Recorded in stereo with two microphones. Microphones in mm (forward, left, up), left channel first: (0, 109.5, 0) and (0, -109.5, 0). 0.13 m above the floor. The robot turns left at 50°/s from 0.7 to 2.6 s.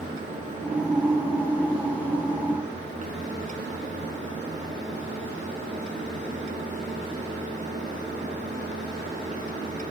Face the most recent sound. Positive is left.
No sound to turn to.